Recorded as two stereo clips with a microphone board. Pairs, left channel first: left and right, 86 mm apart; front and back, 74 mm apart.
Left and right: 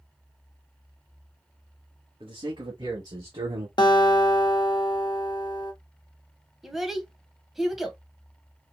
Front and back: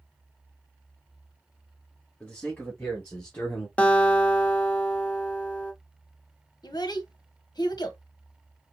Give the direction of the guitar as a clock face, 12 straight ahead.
10 o'clock.